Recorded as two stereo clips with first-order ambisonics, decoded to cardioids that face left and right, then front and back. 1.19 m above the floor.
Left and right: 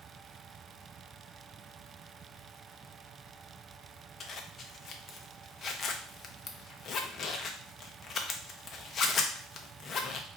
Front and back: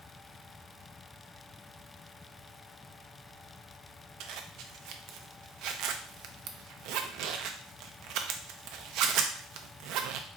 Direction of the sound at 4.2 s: 150° left.